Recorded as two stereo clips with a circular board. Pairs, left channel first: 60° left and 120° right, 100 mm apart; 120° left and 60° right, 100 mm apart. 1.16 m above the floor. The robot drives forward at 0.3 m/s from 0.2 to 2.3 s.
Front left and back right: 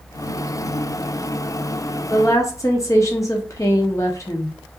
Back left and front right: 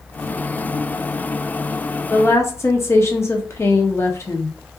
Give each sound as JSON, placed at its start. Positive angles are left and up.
{"t": 2.1, "sound": "a woman speaking", "azimuth_deg": 75, "distance_m": 0.6}